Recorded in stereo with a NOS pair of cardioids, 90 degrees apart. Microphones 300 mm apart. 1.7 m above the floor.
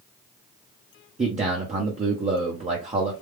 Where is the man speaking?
25° right, 1.0 m.